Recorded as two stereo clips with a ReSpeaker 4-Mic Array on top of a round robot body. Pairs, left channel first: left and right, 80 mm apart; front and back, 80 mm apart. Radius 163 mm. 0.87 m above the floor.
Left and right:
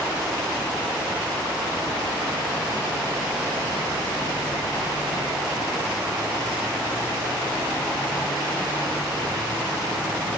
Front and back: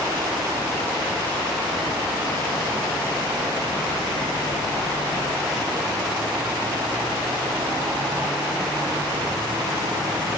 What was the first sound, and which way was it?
Only background noise.